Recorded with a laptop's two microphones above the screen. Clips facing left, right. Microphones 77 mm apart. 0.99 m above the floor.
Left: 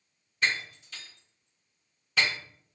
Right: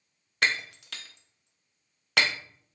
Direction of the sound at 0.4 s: 75° right (ahead or behind).